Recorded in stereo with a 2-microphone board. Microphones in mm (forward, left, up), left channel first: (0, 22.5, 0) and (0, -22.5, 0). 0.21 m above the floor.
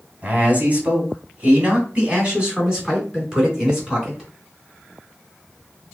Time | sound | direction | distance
0.2 | a man speaking | 35° right (ahead or behind) | 1.9 m